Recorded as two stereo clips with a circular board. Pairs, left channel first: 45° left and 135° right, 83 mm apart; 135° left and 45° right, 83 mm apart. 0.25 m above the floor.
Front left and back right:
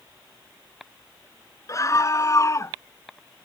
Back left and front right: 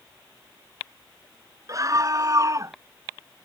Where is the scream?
Straight ahead.